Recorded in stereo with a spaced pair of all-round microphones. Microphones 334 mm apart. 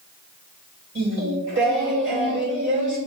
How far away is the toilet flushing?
I don't hear a toilet flushing.